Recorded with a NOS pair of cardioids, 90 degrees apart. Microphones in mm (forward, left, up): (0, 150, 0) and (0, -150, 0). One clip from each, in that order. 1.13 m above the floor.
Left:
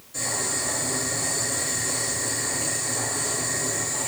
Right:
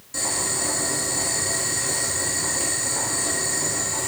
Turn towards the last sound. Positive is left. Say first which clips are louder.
# right 2 dB
turn(degrees=-60)